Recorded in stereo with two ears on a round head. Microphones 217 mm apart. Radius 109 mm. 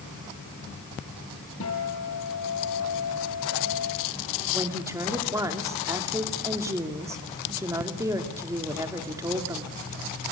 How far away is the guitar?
About 7 m.